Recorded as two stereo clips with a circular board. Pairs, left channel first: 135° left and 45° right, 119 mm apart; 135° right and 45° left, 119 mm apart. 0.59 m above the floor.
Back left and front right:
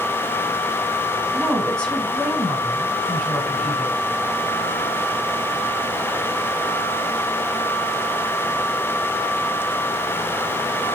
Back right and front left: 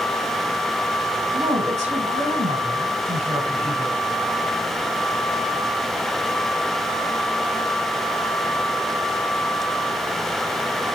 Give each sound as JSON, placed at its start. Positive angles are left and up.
{"t": 1.3, "sound": "a woman speaking", "azimuth_deg": 55, "distance_m": 5.0}